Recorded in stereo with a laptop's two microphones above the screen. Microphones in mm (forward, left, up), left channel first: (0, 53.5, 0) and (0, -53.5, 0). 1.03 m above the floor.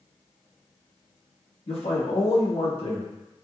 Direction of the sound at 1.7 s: 65° left (ahead or behind).